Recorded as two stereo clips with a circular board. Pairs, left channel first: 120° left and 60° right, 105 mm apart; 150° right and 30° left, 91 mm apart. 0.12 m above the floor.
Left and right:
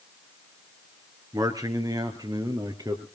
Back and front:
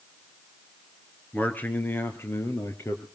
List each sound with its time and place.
1.3 s a man speaking: 85° right, 2 m; by 3.0 s 100° right, 3 m